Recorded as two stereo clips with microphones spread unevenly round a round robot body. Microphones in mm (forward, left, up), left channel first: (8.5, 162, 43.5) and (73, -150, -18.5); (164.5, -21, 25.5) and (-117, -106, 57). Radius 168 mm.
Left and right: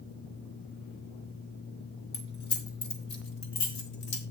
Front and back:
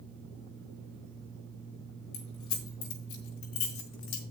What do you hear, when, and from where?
2.1 s keys jangling: 50° left, 3 m; by 4.2 s 70° left, 2 m